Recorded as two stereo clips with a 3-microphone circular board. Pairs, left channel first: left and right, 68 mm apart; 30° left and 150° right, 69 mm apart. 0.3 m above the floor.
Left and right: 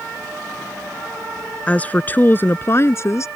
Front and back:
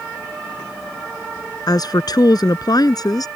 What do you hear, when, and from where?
1.7 s a woman speaking: 20° left; by 3.3 s 50° left